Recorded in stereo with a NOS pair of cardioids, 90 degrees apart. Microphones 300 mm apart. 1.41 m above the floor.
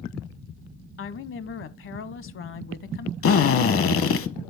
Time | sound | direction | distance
1.0 | a woman speaking | 45° left | 0.8 m
3.2 | a drill | 50° left | 0.8 m